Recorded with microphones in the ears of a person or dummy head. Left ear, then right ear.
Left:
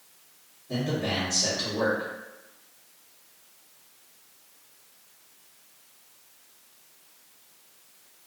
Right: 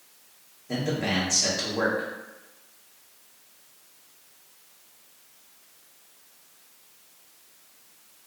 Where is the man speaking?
60° right (ahead or behind), 1.1 m.